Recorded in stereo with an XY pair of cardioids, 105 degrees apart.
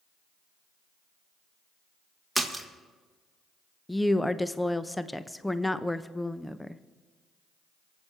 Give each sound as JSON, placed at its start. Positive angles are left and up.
{"t": 2.4, "sound": "a splash", "azimuth_deg": -5, "distance_m": 1.9}
{"t": 3.9, "sound": "a woman speaking", "azimuth_deg": 10, "distance_m": 0.6}